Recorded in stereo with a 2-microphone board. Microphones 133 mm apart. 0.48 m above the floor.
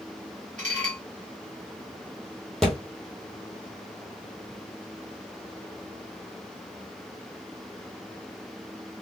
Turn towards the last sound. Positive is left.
turn(degrees=5)  # may be behind; listen again after turning